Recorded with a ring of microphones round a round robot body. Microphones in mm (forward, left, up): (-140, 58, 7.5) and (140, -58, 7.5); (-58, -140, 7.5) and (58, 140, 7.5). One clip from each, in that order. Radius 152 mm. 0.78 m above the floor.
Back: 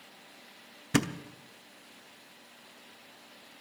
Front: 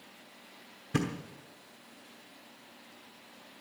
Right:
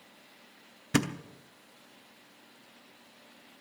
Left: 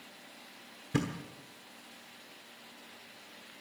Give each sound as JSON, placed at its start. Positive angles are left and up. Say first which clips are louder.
{"t": 0.9, "sound": "a thud", "louder": "back 4 dB, right 5 dB", "azimuth_deg": -150, "distance_m": 0.8}